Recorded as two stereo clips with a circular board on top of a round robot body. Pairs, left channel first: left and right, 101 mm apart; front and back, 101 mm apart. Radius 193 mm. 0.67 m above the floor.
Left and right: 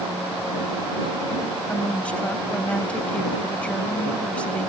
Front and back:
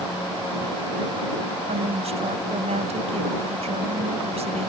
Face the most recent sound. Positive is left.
turn(degrees=170)